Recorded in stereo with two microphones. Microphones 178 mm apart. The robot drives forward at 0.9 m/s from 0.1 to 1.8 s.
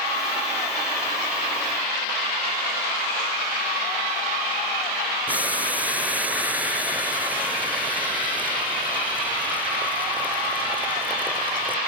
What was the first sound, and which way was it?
Boiling, 10° right (ahead or behind).